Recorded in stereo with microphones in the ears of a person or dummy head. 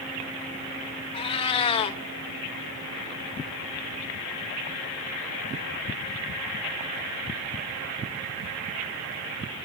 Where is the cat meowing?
30° left (ahead or behind), 0.8 m.